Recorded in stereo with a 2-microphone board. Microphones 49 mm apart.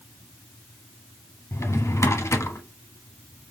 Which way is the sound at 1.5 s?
75° left (ahead or behind).